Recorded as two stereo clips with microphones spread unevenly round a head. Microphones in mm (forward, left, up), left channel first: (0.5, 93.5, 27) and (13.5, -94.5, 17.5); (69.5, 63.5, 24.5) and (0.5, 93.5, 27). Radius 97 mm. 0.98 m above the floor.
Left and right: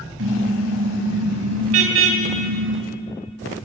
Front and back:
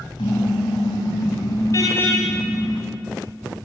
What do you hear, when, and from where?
0.2 s a car horn: 70° right, 3 m; by 2.8 s 110° right, 3.5 m